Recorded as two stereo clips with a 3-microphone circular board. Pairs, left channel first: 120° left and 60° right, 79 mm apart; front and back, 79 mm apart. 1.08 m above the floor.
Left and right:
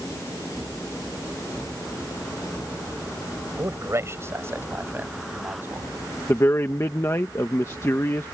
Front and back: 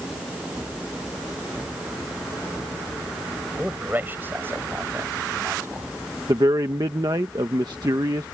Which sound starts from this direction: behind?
A man speaking, at 6.3 s.